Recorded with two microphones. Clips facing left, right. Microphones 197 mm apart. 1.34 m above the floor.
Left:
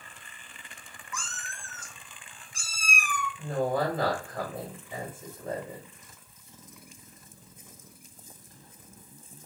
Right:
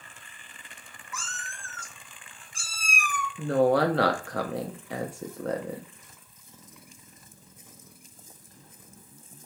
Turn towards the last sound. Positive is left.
turn(degrees=-85)